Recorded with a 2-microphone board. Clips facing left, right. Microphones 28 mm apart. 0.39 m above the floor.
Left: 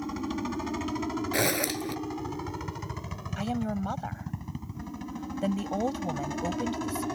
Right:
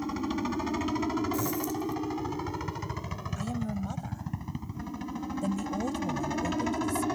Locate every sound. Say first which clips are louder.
0.0 s a helicopter: right 1 dB; 10° right (ahead or behind)
1.3 s a zipper: left 3 dB; 70° left (ahead or behind)
3.4 s a woman speaking: left 4 dB; 35° left (ahead or behind)